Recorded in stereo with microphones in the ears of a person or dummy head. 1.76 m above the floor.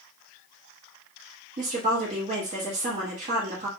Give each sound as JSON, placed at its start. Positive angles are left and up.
{"t": 1.6, "sound": "a woman speaking", "side_deg": -45, "distance_m": 1.2}